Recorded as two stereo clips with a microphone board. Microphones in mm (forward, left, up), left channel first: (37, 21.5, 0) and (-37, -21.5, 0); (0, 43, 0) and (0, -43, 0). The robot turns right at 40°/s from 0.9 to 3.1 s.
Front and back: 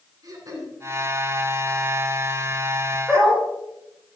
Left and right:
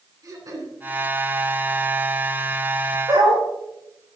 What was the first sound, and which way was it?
Throat clearing, 125° right.